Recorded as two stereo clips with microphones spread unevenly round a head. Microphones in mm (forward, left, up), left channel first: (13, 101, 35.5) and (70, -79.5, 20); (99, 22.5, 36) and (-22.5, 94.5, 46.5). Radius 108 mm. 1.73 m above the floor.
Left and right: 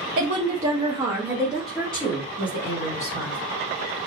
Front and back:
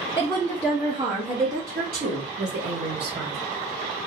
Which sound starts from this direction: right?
A woman speaking, at 0.2 s.